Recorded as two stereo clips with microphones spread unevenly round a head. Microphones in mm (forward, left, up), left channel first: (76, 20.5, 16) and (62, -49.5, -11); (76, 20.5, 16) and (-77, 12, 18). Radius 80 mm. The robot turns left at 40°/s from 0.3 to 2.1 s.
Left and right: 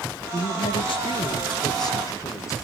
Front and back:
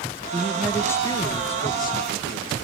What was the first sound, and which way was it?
A woman speaking, 100° left.